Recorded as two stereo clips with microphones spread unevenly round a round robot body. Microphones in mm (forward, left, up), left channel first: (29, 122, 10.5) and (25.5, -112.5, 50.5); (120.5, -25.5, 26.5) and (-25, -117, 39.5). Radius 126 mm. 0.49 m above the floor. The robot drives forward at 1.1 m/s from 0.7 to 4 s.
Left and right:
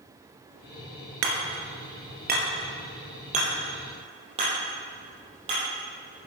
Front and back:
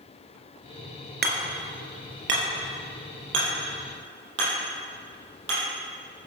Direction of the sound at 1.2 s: 125° right.